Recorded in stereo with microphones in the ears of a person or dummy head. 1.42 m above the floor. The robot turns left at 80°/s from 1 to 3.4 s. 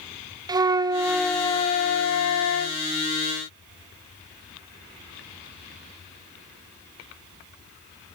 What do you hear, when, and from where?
0.5 s a flute: 165° right, 0.6 m; by 2.8 s 50° left, 0.6 m